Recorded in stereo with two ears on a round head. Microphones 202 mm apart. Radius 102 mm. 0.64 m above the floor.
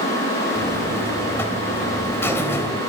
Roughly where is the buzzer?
Centre.